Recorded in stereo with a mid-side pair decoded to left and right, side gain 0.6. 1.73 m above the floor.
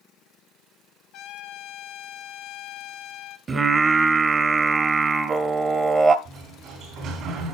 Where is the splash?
No splash in this recording.